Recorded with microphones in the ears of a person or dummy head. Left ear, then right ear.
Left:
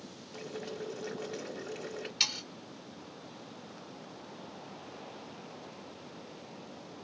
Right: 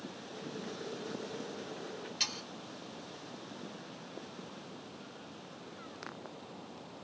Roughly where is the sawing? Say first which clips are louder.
Left 5 dB; centre.